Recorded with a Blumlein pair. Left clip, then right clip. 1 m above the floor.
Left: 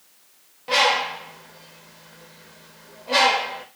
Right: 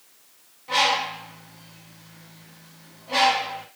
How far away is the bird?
About 0.8 m.